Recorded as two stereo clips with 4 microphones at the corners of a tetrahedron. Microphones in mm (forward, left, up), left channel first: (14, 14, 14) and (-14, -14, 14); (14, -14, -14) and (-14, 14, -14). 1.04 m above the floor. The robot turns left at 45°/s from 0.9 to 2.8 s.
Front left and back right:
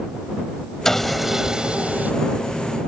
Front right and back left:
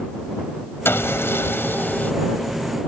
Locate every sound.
0.8 s sawing: 35° right; by 2.1 s 90° right